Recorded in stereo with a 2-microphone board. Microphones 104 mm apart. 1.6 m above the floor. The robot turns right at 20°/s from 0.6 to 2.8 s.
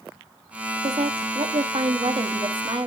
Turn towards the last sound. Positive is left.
turn(degrees=-50)